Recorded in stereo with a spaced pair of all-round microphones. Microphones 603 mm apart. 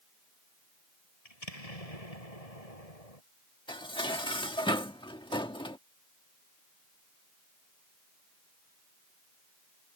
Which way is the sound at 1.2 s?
75° left (ahead or behind).